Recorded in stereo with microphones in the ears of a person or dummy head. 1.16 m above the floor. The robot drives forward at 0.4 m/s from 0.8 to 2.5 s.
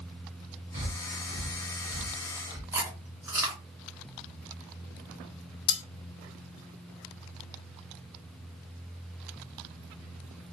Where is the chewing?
25° right (ahead or behind), 1.0 m.